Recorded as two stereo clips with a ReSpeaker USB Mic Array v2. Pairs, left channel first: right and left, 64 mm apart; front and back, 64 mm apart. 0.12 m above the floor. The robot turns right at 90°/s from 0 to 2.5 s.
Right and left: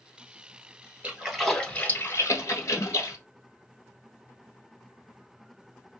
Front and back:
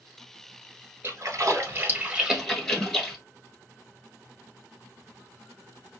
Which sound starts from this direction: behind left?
A splash, at 1.0 s.